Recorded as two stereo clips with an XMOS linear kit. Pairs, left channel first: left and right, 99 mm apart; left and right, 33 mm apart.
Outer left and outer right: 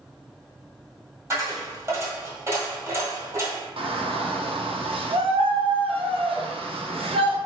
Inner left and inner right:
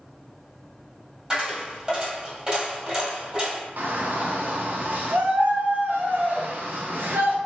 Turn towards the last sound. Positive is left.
turn(degrees=-70)  # may be behind; listen again after turning